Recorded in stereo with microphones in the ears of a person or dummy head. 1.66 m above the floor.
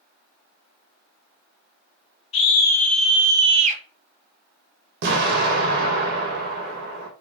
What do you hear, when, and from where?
2.3 s a scream: 35° left (ahead or behind), 1.4 m; by 3.8 s 50° right (ahead or behind), 1.3 m
5.0 s an explosion: 60° right (ahead or behind), 1.5 m